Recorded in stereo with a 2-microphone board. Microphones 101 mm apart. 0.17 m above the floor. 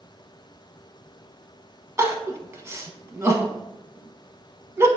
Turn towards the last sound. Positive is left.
turn(degrees=-30)  # may be behind; listen again after turning